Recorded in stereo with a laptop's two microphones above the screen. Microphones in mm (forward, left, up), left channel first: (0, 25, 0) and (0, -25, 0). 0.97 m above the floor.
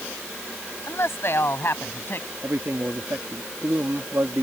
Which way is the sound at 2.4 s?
65° right (ahead or behind).